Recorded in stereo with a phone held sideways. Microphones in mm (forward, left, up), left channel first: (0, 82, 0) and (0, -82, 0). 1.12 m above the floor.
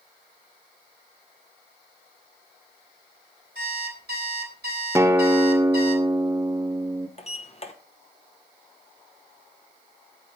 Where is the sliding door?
40° left (ahead or behind), 1.0 m.